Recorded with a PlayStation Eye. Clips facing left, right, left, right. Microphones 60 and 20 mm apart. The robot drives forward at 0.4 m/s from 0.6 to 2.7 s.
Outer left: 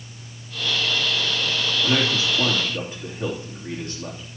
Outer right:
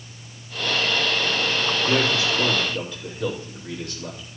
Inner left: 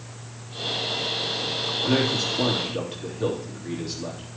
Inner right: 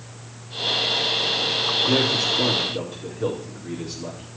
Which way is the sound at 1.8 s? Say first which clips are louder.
Even, even; 35° left (ahead or behind).